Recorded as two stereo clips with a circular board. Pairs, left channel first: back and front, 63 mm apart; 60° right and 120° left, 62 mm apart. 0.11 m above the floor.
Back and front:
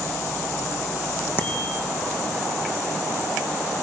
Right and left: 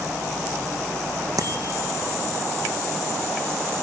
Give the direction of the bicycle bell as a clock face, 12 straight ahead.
8 o'clock.